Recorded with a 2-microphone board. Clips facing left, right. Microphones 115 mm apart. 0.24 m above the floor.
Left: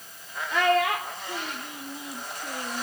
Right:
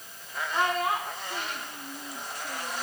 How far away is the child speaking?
About 3.5 m.